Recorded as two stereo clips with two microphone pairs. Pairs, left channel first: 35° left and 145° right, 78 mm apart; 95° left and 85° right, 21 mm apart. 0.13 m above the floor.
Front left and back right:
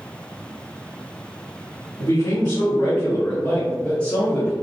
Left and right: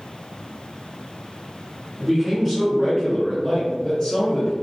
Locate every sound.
2.0 s a man speaking: 5° right, 1.7 m; by 4.5 s 110° left, 1.5 m